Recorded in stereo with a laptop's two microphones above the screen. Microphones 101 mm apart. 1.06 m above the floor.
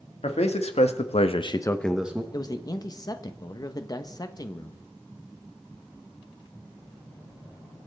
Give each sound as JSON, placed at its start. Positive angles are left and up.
{"t": 0.2, "sound": "a man speaking", "side_deg": 80, "distance_m": 2.0}
{"t": 2.3, "sound": "a man speaking", "side_deg": 35, "distance_m": 1.0}